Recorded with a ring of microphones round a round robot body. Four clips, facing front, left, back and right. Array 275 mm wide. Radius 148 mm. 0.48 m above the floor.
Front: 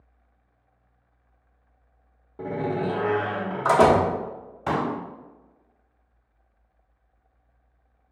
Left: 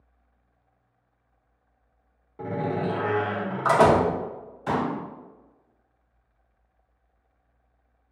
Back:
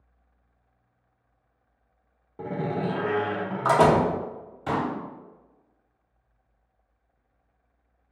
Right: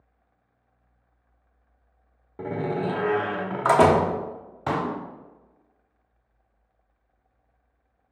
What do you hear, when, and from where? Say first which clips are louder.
2.4 s a door slam: even, front 2 dB; 95° right, 0.9 m
4.7 s a pop: even, front 2 dB; 70° right, 1.3 m